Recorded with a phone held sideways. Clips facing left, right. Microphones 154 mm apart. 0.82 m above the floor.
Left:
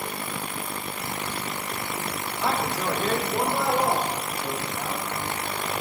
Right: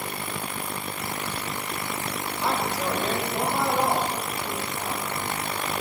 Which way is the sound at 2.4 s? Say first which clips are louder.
Left 1 dB; 55° left (ahead or behind).